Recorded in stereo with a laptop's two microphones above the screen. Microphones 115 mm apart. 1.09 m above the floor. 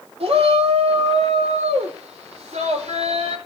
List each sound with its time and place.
0.2 s a shout: 65° right (ahead or behind), 3 m; by 3.4 s 85° right, 5 m